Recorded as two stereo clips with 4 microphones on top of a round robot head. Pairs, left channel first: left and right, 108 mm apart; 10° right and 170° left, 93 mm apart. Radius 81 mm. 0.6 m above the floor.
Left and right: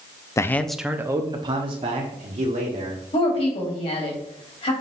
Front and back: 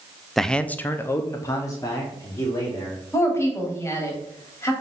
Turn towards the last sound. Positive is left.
turn(degrees=45)